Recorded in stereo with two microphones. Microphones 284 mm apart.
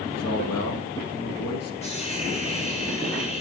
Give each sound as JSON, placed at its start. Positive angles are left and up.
{"t": 0.1, "sound": "a man speaking", "side_deg": 65, "distance_m": 3.0}
{"t": 1.8, "sound": "a hiss", "side_deg": 25, "distance_m": 4.0}